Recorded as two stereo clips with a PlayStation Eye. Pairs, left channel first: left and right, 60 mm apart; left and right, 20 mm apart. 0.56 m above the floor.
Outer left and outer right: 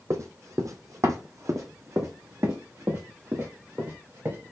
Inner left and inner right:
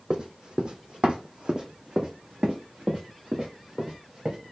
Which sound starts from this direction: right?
Running footsteps, at 0.1 s.